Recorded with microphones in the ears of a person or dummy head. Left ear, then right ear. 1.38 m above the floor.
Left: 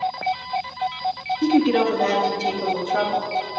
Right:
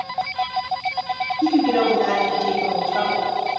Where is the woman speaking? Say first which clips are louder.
Even; 50° left (ahead or behind), 0.8 m.